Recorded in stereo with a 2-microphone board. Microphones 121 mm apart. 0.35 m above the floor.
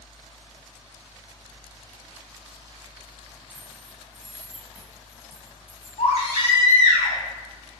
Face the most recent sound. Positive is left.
turn(degrees=70)  # may be behind; listen again after turning